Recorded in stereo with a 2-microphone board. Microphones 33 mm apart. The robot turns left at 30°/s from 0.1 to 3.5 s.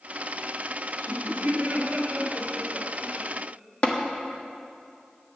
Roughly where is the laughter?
Right.